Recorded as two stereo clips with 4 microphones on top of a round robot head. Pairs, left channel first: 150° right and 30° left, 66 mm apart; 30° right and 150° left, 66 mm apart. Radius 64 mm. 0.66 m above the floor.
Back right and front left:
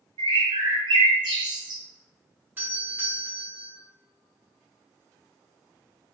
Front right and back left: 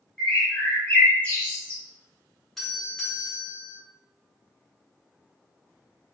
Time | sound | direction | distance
0.2 | a bird | 35° left | 0.8 m
2.6 | a doorbell | 45° left | 1.4 m